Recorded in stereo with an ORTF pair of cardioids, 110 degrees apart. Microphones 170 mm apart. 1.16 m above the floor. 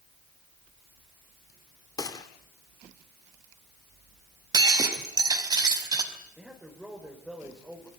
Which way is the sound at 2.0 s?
20° left.